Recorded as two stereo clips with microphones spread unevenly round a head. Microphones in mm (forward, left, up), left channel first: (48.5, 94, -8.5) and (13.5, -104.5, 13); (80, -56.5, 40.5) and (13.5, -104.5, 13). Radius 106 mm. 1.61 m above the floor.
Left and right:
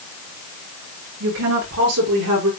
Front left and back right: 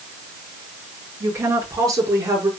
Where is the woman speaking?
95° right, 6.5 m; by 2.5 s 90° right, 5.5 m.